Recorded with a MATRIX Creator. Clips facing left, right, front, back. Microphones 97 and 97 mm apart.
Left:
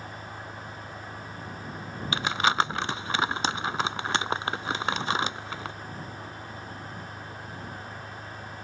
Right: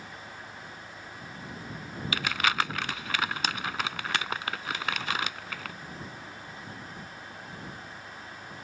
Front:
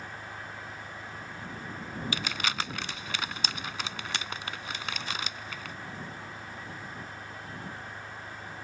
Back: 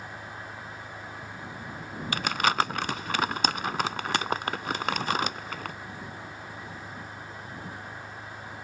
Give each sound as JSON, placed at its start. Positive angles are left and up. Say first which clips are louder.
{"t": 0.0, "sound": "an engine running", "louder": "left 4 dB, back 1 dB", "azimuth_deg": 110}
{"t": 2.1, "sound": "crumpling", "louder": "left 4 dB, back 10 dB", "azimuth_deg": 150}